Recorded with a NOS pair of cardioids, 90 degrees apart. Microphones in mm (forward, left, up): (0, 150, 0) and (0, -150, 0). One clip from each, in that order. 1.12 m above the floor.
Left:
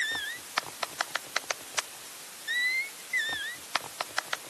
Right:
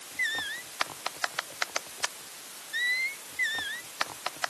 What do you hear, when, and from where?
Only background noise.